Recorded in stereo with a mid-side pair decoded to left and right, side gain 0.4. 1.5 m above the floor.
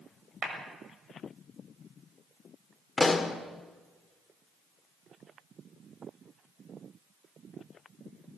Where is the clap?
65° right, 6 m.